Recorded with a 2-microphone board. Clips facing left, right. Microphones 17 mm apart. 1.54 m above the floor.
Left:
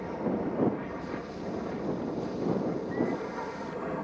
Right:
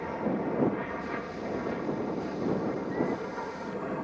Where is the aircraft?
40° right (ahead or behind).